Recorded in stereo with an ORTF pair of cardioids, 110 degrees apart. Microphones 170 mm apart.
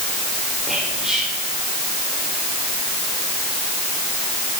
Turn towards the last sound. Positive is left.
turn(degrees=-5)